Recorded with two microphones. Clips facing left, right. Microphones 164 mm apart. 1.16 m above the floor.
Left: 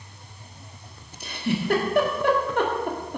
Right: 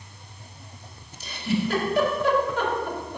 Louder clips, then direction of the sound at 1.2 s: Right 1 dB; 55° left (ahead or behind).